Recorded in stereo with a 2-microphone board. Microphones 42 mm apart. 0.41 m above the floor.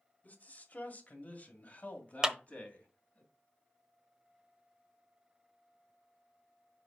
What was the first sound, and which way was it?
A man speaking, 45° left (ahead or behind).